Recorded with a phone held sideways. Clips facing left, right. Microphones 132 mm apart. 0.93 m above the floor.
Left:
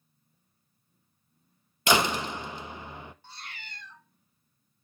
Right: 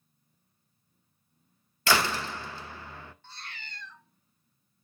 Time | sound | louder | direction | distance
1.9 | a door slam | left 2 dB | 20° left (ahead or behind) | 0.6 m
3.2 | a cat meowing | even | 15° left (ahead or behind) | 1.4 m